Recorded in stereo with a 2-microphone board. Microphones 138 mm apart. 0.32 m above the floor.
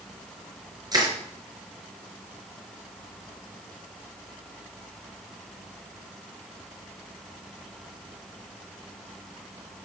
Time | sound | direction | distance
0.9 | crushing | 30° right (ahead or behind) | 5 m